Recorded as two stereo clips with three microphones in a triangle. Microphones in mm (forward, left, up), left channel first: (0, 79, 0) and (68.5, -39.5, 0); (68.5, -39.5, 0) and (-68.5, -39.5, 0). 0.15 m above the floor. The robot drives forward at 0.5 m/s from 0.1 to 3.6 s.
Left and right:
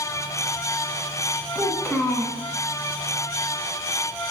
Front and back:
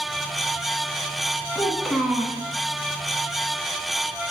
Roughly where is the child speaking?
Ahead left.